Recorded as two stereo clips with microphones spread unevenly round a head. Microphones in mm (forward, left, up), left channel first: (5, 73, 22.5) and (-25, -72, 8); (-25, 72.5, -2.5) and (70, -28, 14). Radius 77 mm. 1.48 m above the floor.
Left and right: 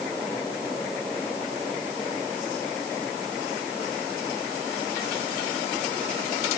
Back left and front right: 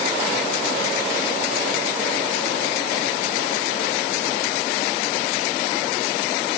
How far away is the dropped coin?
I don't hear a dropped coin.